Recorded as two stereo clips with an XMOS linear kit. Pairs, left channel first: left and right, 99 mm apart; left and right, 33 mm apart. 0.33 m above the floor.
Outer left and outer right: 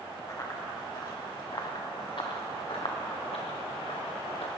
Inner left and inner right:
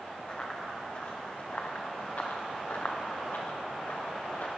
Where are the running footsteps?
35° left (ahead or behind), 3.5 m; by 4.5 s 80° left, 2.5 m.